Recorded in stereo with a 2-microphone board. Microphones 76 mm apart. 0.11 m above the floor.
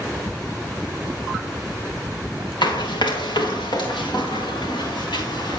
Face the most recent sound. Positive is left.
turn(degrees=70)  # may be behind; listen again after turning